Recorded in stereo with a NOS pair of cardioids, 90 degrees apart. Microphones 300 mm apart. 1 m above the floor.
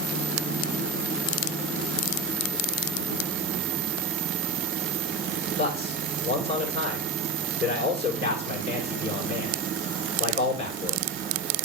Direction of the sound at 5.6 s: 20° left.